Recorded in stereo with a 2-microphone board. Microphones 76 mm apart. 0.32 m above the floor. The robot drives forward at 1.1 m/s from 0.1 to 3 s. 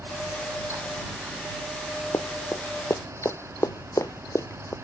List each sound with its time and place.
2.1 s running footsteps: 40° left (ahead or behind)